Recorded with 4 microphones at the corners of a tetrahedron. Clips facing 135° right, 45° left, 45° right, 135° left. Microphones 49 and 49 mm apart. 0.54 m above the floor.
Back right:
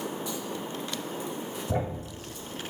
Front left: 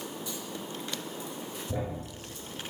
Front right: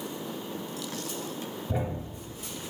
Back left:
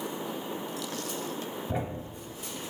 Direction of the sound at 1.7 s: 150° right.